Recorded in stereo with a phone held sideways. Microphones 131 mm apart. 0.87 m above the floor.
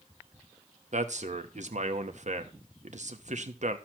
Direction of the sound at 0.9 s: 60° right (ahead or behind).